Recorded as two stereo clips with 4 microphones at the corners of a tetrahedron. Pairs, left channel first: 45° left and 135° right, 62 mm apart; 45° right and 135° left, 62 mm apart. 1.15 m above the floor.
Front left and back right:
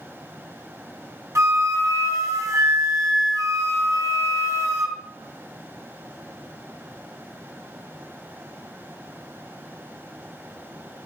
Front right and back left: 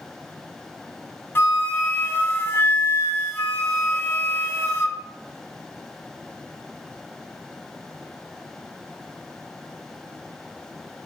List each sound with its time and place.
1.4 s a flute: 100° right, 1.0 m